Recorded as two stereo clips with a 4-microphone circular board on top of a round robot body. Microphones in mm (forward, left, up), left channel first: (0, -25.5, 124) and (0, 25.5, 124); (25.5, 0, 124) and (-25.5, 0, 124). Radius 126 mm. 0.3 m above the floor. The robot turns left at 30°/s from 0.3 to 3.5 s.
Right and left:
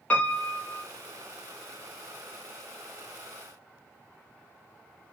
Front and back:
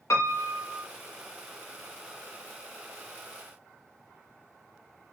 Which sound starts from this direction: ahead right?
A piano, at 0.1 s.